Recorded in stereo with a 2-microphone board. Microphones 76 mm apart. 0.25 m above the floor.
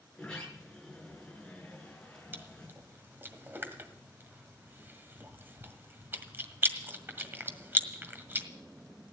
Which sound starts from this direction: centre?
A sliding door, at 0.1 s.